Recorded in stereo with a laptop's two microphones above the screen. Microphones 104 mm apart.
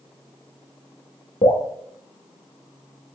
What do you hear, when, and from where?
1.4 s dripping: 85° left, 0.6 m